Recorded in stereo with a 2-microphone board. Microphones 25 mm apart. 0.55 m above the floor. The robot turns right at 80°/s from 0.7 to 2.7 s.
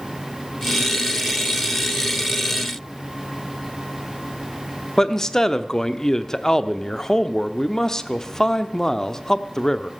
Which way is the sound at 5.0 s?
20° left (ahead or behind).